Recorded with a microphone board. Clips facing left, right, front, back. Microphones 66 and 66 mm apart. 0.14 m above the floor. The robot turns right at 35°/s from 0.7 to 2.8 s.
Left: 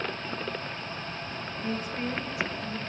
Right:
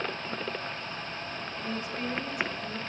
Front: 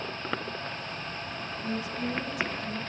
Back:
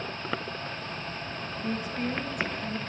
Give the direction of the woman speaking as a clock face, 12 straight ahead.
8 o'clock.